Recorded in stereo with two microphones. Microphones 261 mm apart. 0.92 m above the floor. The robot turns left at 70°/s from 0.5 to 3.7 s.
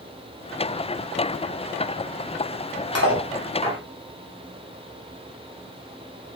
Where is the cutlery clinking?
70° left (ahead or behind), 1.4 m; by 3.8 s 20° left (ahead or behind), 1.4 m.